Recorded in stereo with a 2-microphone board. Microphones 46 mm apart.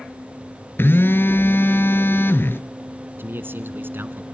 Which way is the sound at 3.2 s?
50° right (ahead or behind).